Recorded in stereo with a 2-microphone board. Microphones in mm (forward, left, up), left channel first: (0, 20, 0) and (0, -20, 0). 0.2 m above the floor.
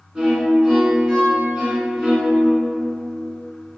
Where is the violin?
20° right (ahead or behind), 1.6 m.